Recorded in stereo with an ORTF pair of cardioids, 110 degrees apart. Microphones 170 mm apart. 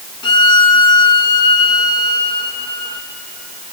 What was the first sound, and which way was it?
A violin, 25° left.